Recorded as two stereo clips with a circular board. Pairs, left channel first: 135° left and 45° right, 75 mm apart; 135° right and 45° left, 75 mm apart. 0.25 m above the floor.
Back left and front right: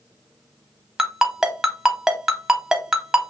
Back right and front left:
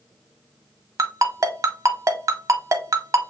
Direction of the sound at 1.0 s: 35° left.